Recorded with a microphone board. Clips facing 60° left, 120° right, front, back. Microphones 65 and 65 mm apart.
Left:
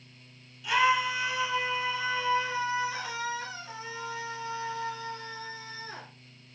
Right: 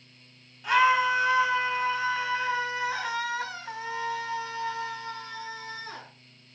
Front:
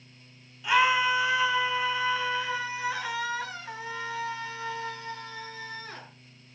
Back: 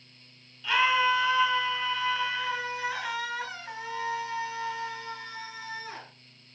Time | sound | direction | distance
0.6 | a scream | 75° right | 5 m